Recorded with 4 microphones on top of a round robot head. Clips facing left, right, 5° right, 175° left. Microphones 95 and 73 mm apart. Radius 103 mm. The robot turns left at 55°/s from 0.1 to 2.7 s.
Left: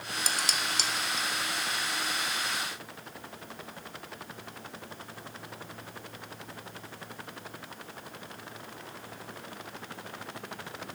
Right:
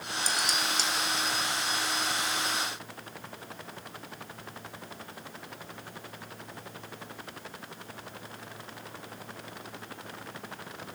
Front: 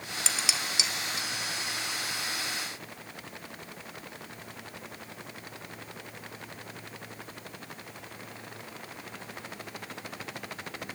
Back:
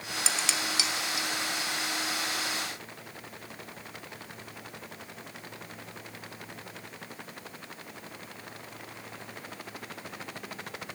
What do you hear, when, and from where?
0.3 s dishes clattering: 90° left, 1.7 m; by 1.3 s 35° left, 1.7 m